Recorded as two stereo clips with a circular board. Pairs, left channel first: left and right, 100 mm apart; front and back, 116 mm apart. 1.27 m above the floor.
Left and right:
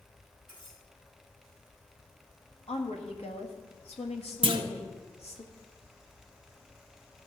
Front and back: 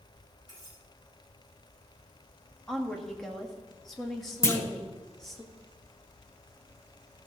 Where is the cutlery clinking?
60° left, 5 m.